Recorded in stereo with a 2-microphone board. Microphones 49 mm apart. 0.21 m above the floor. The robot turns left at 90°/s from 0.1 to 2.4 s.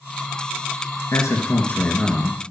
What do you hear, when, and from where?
1.1 s a man speaking: 90° left, 2.5 m; by 2.4 s 25° right, 2.5 m